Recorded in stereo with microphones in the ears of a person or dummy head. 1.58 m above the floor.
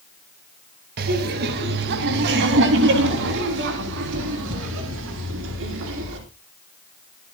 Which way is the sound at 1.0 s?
50° right (ahead or behind).